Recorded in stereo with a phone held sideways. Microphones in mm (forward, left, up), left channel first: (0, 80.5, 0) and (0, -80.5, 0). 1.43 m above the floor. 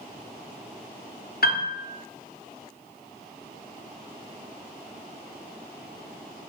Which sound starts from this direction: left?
A piano, at 1.4 s.